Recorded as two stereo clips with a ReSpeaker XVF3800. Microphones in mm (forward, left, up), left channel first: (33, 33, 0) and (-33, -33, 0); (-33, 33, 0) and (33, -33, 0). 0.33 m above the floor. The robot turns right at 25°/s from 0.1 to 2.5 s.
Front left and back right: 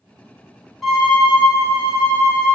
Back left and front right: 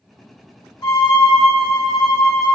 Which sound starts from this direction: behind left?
A violin, at 0.8 s.